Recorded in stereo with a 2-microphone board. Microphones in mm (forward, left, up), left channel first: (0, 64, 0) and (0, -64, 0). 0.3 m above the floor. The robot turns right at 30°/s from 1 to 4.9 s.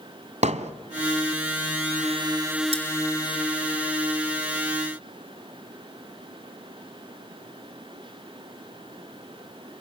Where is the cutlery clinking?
55° right (ahead or behind), 2.5 m.